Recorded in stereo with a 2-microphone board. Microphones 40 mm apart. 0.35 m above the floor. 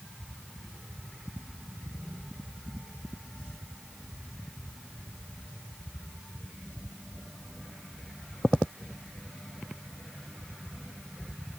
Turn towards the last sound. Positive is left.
No sound to turn to.